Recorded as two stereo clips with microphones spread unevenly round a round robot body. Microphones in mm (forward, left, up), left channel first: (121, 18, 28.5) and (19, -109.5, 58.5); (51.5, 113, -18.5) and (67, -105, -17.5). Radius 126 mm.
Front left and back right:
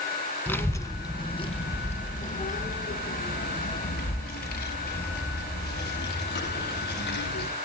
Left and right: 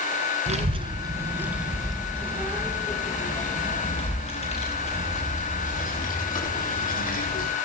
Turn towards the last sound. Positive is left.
turn(degrees=45)